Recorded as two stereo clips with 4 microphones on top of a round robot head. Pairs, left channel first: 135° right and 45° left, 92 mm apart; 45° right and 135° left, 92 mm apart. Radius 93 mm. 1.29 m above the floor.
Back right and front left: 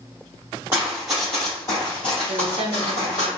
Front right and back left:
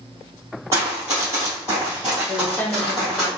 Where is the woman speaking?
25° left, 0.7 m.